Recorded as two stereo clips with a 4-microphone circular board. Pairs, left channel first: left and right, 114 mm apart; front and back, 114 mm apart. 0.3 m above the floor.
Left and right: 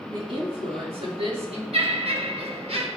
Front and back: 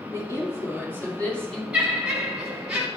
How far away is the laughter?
About 2.5 m.